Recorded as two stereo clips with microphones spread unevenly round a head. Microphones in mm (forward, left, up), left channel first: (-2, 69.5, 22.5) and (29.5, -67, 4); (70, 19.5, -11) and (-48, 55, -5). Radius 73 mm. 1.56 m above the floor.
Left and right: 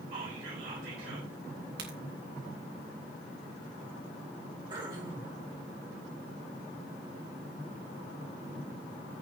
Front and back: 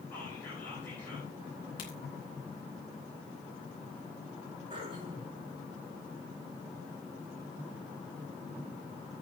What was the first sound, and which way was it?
Whispering, 95° right.